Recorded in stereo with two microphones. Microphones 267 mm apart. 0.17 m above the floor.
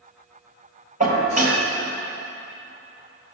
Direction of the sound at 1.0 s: 30° right (ahead or behind).